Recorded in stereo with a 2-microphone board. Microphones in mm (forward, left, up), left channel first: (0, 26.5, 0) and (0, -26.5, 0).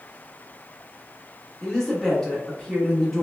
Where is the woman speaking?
5° left (ahead or behind), 0.9 m.